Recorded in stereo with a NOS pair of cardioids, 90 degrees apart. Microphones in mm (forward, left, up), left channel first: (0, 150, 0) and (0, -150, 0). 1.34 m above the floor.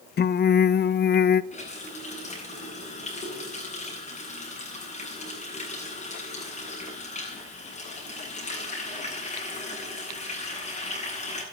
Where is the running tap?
25° left, 9.5 m.